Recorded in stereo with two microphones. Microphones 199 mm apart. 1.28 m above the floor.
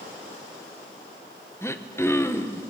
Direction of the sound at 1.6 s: 15° left (ahead or behind).